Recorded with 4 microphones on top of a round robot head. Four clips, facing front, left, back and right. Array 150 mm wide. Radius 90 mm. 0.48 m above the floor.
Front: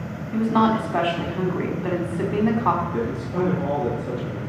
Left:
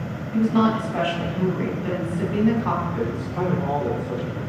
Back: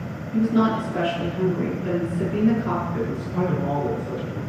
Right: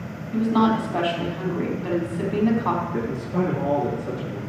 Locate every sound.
0.3 s a woman speaking: 15° right, 4 m
2.9 s a man speaking: 55° right, 8 m